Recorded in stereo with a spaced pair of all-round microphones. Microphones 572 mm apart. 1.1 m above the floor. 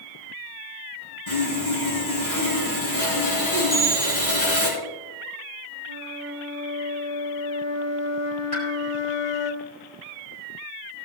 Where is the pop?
70° left (ahead or behind), 5 m.